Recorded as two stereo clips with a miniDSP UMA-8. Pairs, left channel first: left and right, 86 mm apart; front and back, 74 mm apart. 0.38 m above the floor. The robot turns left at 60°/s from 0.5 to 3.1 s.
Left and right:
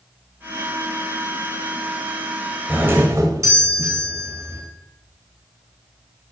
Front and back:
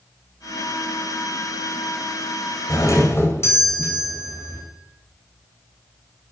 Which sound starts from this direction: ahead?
A doorbell, at 2.7 s.